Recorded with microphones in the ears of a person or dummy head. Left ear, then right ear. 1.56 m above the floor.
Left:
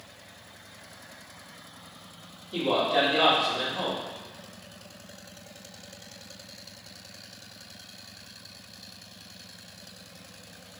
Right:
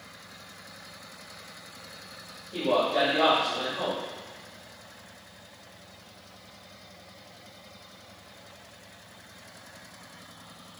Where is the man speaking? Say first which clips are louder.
Even; 55° left (ahead or behind), 1.2 m.